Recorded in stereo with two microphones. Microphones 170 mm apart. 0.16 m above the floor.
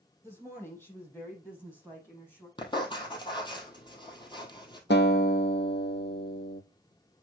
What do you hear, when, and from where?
0.2 s a woman speaking: 15° left (ahead or behind), 4.5 m; by 2.5 s 10° left (ahead or behind), 6 m
2.6 s writing: 25° left (ahead or behind), 1.7 m
4.9 s a guitar: 85° left, 1.1 m